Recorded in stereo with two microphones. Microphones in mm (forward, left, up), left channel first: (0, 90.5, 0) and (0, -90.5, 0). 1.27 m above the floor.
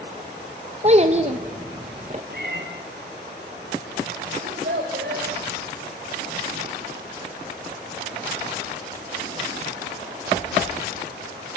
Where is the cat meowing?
60° right (ahead or behind), 5.5 m.